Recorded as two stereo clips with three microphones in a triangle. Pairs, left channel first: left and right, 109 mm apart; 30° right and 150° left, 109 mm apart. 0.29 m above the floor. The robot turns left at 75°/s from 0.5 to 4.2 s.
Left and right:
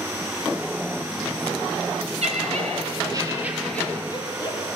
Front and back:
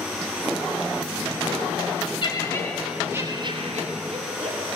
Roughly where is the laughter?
Right.